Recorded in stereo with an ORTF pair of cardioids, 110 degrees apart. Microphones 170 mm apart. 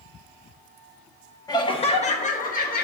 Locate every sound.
1.5 s laughter: 20° left, 1.1 m; by 2.9 s 60° left, 1.5 m